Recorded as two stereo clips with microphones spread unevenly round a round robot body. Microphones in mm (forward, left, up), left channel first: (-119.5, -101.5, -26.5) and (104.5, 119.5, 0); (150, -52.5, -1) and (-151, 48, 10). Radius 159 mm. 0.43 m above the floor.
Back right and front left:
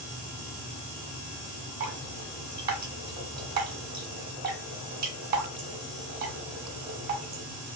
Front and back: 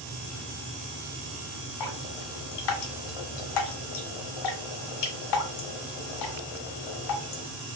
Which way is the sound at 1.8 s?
20° right.